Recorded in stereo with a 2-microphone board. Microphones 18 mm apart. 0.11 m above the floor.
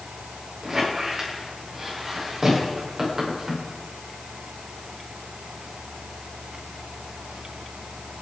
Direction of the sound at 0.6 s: 25° right (ahead or behind).